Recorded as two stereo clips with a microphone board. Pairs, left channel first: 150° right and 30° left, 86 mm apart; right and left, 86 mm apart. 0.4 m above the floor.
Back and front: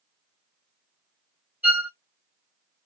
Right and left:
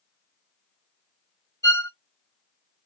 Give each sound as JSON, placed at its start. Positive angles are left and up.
{"t": 1.6, "sound": "a violin", "azimuth_deg": -40, "distance_m": 0.7}